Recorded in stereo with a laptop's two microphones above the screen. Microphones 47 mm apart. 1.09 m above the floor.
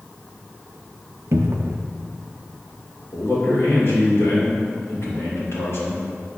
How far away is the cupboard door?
About 0.5 m.